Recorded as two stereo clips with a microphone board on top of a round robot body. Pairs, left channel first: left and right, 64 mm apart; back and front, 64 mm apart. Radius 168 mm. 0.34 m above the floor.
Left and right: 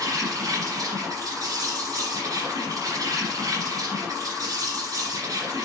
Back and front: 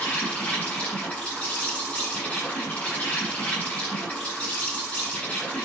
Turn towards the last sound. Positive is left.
turn(degrees=-110)